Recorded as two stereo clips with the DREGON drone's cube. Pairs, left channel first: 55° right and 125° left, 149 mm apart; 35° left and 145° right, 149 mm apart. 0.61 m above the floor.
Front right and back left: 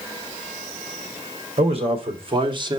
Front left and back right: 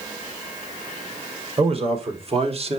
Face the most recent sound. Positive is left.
turn(degrees=180)